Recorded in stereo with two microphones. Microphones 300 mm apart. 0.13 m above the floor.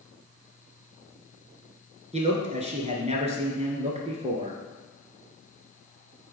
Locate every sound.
2.1 s a man speaking: 20° right (ahead or behind), 1.5 m